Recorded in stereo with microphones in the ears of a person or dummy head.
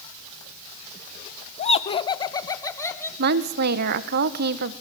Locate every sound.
1.6 s laughter: 45° left (ahead or behind), 1.1 m; by 3.1 s 20° left (ahead or behind), 2.5 m
3.2 s a woman speaking: 55° right (ahead or behind), 1.2 m